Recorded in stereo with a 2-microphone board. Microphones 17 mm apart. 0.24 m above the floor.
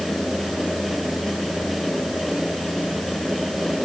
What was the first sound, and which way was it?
Only background noise.